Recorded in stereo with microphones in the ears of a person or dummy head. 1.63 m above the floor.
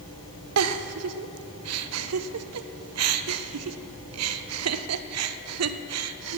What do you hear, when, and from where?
0.6 s a giggle: 85° right, 0.6 m